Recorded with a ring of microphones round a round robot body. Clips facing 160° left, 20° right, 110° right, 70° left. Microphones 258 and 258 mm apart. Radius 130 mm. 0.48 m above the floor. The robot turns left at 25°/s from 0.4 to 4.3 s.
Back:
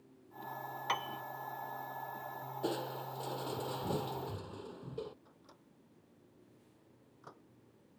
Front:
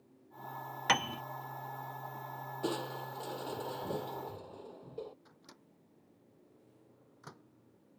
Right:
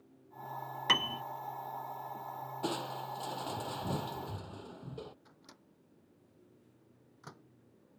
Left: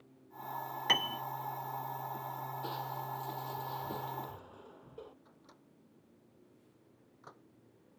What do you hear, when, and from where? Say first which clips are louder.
0.9 s a piano: front 8 dB, right 1 dB; 40° right; by 1.2 s 45° right
2.6 s crushing: front 1 dB, right 9 dB; 95° right; by 5.2 s 140° right
5.2 s a microwave: front 1 dB, even; 70° right